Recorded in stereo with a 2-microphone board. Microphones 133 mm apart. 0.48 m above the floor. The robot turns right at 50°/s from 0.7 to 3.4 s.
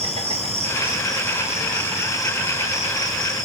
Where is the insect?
50° right, 7 m; by 3.5 s 85° left, 7 m.